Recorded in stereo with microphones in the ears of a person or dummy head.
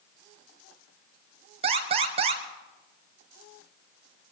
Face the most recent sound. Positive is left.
turn(degrees=-25)  # may be behind; listen again after turning